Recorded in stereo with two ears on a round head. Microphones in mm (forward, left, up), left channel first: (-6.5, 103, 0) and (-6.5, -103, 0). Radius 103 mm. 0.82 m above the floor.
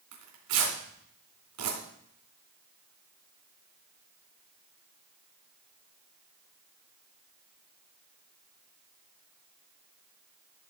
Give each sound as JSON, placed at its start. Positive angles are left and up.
{"t": 0.1, "sound": "tearing paper", "side_deg": -80, "distance_m": 3.5}